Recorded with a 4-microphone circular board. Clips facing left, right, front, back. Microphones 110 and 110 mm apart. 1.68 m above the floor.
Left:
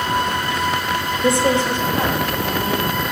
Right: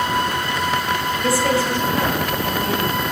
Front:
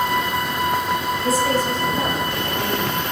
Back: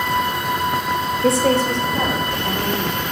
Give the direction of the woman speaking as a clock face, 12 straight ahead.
7 o'clock.